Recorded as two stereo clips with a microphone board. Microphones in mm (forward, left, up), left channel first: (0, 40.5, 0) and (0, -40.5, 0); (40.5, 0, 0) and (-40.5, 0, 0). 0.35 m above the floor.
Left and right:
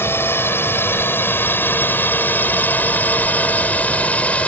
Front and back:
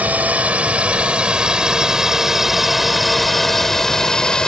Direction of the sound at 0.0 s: 125° left.